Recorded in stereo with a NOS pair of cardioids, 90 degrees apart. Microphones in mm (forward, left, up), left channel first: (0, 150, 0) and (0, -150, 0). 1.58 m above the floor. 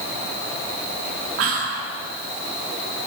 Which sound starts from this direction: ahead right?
Whispering, at 1.4 s.